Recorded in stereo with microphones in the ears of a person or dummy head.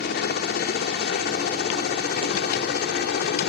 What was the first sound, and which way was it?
A helicopter, 55° left (ahead or behind).